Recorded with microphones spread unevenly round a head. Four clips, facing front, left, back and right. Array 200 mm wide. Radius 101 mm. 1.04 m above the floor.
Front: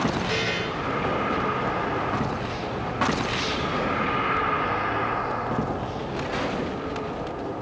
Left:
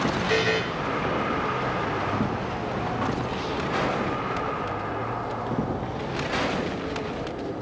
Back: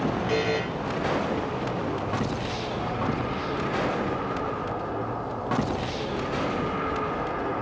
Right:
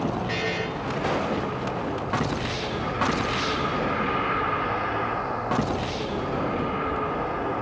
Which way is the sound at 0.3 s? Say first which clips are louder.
Left 5 dB, back 3 dB; 145° left.